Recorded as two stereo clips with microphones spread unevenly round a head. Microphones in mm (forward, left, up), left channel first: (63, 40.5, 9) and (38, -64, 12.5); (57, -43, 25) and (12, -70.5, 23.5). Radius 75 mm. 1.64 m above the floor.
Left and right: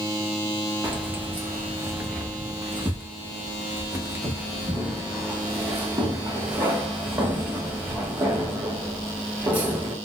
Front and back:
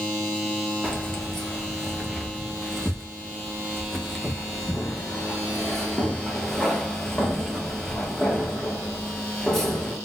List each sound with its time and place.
0.8 s keys jangling: 45° right, 1.0 m